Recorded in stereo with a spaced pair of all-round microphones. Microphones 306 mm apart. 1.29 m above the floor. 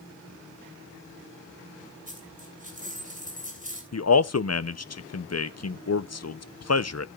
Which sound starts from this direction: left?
A man speaking, at 3.9 s.